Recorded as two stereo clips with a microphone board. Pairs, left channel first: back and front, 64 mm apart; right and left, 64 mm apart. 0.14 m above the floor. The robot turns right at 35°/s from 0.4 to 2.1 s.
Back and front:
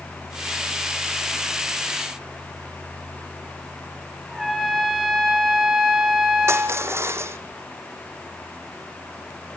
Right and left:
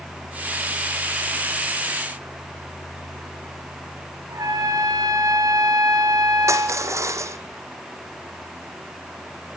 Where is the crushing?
45° left, 1.4 m.